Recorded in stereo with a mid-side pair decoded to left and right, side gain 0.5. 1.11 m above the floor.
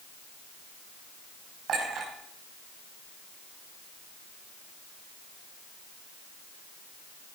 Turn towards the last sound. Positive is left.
turn(degrees=-55)